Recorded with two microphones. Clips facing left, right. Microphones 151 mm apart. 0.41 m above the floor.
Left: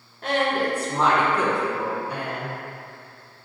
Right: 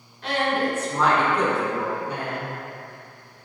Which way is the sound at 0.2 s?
50° left (ahead or behind).